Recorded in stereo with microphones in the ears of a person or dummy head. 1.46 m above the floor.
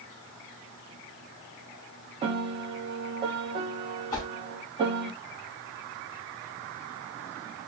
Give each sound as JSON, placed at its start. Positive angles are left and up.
{"t": 2.2, "sound": "a piano", "side_deg": -30, "distance_m": 0.6}
{"t": 4.1, "sound": "a whoosh", "side_deg": 25, "distance_m": 0.9}